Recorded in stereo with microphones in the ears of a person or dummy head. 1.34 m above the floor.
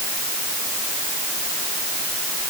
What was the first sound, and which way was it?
Only background noise.